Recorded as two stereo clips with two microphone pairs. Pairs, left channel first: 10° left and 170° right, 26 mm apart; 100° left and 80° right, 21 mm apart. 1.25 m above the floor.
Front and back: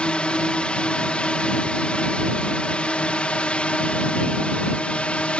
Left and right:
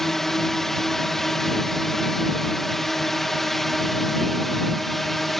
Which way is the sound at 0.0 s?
30° left.